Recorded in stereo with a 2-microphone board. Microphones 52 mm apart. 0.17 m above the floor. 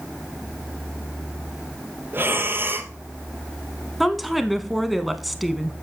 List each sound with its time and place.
2.1 s breathing: 45° right (ahead or behind), 1.3 m
4.0 s a woman speaking: centre (ahead or behind), 1.1 m